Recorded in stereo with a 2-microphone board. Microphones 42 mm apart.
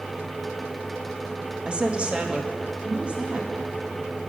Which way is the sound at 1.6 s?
25° right (ahead or behind).